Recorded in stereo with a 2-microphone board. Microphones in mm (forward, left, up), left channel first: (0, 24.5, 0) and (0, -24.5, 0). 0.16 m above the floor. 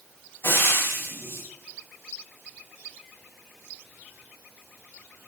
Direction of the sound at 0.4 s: 60° left (ahead or behind).